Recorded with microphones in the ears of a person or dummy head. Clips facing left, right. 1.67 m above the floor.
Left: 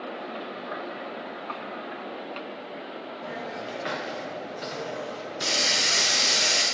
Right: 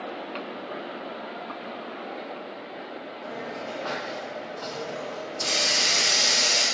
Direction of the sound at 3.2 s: 20° left (ahead or behind).